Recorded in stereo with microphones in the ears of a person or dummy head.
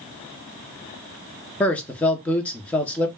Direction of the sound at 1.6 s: 10° left (ahead or behind).